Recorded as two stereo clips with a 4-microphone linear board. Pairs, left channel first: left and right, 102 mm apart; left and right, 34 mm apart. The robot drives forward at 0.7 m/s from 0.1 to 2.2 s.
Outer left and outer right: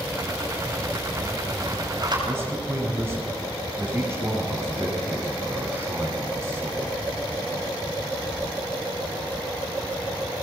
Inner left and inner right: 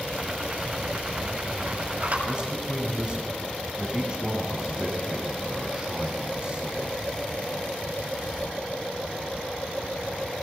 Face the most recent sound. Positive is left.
turn(degrees=-25)  # may be behind; listen again after turning